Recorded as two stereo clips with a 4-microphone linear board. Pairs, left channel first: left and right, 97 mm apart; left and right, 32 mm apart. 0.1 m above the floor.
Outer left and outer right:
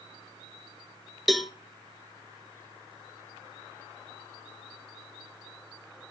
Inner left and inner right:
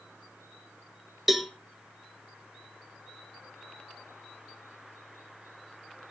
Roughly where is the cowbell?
Centre.